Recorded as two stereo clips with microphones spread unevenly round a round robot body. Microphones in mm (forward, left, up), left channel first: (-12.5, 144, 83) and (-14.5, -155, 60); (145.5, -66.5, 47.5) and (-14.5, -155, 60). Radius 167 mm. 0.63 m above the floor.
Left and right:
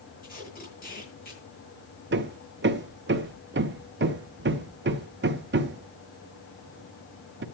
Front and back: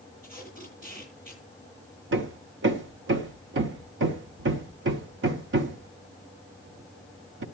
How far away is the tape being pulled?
About 9.5 m.